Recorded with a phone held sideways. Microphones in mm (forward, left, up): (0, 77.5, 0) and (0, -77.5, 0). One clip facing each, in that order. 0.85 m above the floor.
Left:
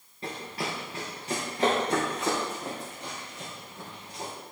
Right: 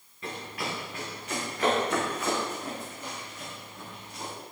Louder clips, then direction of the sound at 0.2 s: Left 1 dB; 30° left (ahead or behind).